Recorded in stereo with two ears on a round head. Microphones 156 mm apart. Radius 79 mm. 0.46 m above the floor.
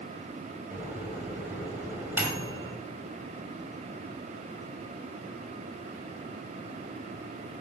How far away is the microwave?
About 2 m.